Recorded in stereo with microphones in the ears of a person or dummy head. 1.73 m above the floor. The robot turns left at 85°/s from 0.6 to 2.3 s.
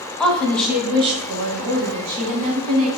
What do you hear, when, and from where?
0.2 s a woman speaking: 5° left, 0.9 m; by 2.9 s 140° right, 0.9 m